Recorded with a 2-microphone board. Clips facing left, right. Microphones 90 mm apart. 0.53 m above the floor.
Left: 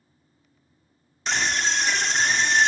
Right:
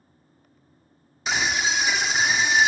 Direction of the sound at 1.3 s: 5° right (ahead or behind).